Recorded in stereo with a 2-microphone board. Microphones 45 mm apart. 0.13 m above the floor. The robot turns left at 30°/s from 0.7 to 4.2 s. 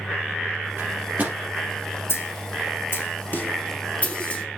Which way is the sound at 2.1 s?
65° left (ahead or behind).